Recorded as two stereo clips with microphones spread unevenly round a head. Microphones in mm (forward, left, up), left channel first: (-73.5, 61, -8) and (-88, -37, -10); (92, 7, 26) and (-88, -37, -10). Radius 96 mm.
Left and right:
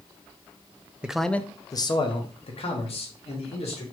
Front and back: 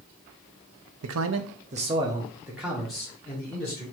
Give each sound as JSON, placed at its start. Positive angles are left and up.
{"t": 1.0, "sound": "a man speaking", "azimuth_deg": 180, "distance_m": 0.6}